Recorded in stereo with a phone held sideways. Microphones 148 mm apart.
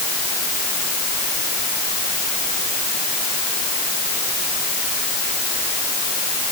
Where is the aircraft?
No aircraft in this recording.